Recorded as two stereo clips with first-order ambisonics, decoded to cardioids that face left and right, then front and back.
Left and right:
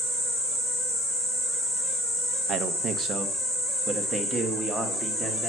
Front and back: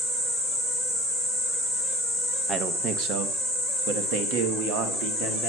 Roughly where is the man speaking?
Behind right.